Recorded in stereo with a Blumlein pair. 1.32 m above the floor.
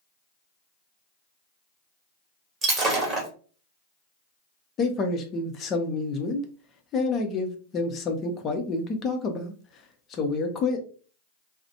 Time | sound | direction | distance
2.6 | breaking glass | 20° right | 1.1 m
4.8 | a man speaking | 25° left | 0.7 m